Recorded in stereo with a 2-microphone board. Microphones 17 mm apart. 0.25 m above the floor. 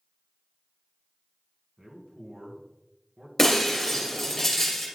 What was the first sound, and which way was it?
A man speaking, 55° right (ahead or behind).